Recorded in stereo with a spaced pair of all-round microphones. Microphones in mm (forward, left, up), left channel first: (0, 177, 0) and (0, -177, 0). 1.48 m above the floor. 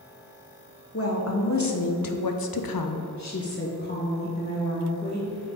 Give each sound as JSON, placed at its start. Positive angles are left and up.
{"t": 0.9, "sound": "a woman speaking", "side_deg": 40, "distance_m": 1.1}